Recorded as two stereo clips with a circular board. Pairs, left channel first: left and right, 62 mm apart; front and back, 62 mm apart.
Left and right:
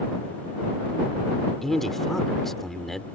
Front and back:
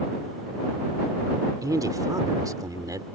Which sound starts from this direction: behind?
A man speaking, at 1.6 s.